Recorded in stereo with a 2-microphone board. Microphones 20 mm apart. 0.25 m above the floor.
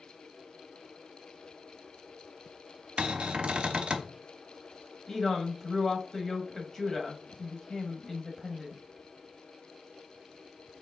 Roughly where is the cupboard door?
Right.